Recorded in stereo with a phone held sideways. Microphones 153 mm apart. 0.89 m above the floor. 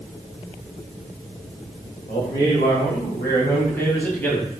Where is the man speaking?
25° left (ahead or behind), 5 m; by 4.5 s 10° left (ahead or behind), 6 m.